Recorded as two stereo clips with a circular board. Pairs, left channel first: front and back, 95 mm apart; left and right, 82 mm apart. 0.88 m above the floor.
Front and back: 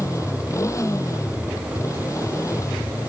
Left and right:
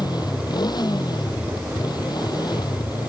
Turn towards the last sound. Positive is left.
turn(degrees=55)